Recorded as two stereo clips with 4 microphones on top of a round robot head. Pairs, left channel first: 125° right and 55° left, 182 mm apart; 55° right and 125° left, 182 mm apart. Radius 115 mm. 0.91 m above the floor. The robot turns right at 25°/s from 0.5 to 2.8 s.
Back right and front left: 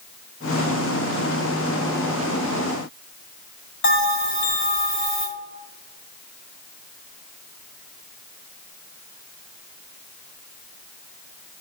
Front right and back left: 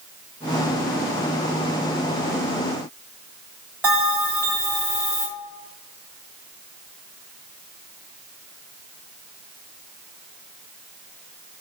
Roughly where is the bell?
Behind right.